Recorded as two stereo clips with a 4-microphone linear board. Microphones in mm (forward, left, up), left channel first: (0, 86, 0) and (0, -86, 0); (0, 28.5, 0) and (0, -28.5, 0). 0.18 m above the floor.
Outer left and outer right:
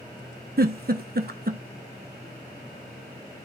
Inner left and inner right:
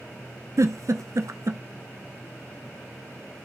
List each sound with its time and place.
0.6 s a giggle: 65° right (ahead or behind), 0.7 m